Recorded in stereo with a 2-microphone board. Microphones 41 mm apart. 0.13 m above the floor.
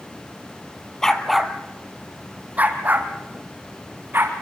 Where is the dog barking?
15° left (ahead or behind), 1.4 m; by 4.3 s 55° right (ahead or behind), 4.5 m.